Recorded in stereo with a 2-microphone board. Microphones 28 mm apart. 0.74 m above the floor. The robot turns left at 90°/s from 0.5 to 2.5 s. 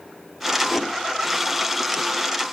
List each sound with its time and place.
0.7 s a whoosh: 40° left (ahead or behind), 2.5 m; by 0.9 s 20° left (ahead or behind), 2.5 m